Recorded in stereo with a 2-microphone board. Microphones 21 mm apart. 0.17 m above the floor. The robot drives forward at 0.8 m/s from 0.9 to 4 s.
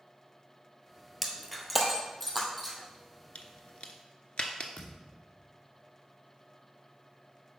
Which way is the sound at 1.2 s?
10° right (ahead or behind).